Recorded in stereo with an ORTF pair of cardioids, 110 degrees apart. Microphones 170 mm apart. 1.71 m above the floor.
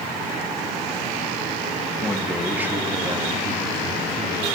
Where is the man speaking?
5° left, 2.5 m; by 4.5 s 45° right, 3.5 m.